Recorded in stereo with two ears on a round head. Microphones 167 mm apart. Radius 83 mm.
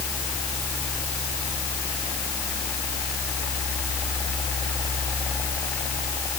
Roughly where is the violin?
No violin in this recording.